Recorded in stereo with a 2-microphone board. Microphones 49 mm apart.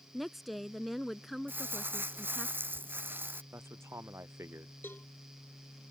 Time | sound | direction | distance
0.1 | a woman speaking | centre (ahead or behind) | ?
1.5 | crumpling | 50° right (ahead or behind) | ?
3.5 | a man speaking | 75° right (ahead or behind) | ?
4.8 | a cowbell | 45° left (ahead or behind) | ?